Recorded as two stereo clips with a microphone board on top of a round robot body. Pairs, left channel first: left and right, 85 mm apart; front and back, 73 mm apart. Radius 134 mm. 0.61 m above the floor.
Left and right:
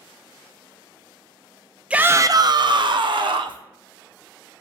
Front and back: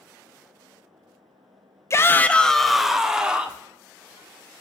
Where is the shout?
20° right, 0.7 m; by 3.6 s 105° right, 1.9 m.